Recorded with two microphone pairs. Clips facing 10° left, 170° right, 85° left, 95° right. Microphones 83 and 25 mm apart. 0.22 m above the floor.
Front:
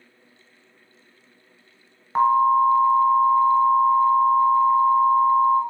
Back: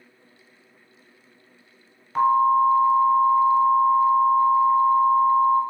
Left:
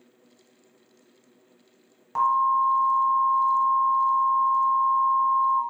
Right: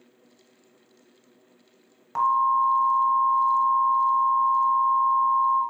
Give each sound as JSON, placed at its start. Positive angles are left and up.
{"t": 2.1, "sound": "an alarm", "azimuth_deg": -15, "distance_m": 1.1}